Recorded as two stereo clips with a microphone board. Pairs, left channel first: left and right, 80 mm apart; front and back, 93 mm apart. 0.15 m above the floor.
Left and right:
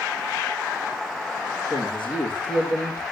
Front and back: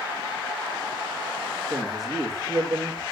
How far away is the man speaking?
About 7 m.